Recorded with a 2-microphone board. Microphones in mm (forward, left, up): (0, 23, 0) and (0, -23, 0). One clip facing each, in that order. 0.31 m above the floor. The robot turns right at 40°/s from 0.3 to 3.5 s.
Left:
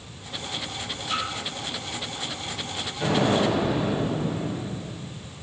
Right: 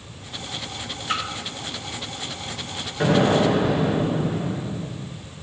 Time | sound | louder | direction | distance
1.1 | a splash | right 2 dB | 60° right (ahead or behind) | 2.5 m
3.0 | an explosion | right 4 dB | 60° right (ahead or behind) | 4 m